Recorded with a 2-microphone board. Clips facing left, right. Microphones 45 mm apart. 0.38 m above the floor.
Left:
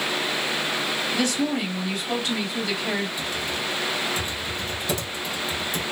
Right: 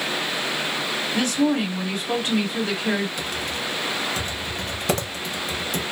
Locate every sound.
1.1 s a woman speaking: 45° right (ahead or behind), 1.8 m
3.2 s typing on a keyboard: 60° right (ahead or behind), 0.6 m